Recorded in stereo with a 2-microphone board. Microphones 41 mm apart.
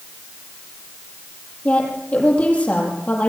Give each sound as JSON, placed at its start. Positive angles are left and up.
{"t": 1.6, "sound": "a woman speaking", "side_deg": 35, "distance_m": 7.5}